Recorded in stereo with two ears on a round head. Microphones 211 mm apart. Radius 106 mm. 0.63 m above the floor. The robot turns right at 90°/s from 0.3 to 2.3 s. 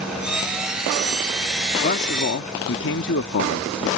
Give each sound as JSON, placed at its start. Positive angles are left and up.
{"t": 1.8, "sound": "a man speaking", "azimuth_deg": 45}